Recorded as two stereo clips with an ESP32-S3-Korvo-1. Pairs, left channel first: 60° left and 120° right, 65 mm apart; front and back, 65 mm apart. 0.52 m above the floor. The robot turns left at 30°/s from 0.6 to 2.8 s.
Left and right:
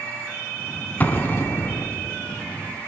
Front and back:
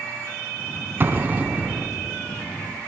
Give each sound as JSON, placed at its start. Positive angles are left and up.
{"t": 1.0, "sound": "an explosion", "azimuth_deg": 125, "distance_m": 1.3}